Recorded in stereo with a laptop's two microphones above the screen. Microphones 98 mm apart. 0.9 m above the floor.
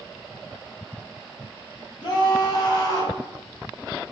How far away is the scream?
About 5.5 m.